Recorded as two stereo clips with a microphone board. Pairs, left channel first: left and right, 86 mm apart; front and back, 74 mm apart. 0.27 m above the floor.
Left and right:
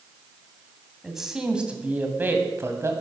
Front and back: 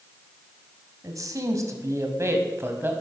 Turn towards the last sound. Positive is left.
turn(degrees=-130)